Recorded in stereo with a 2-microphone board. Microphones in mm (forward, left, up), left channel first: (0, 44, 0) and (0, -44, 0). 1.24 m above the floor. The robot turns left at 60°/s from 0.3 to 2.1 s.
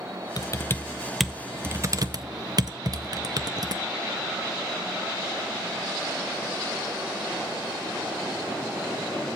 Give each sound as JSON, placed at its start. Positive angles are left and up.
{"t": 0.4, "sound": "typing on a keyboard", "side_deg": 45, "distance_m": 0.6}